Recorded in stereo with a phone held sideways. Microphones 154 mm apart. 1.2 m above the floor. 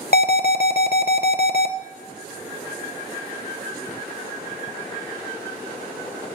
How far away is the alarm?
About 0.7 m.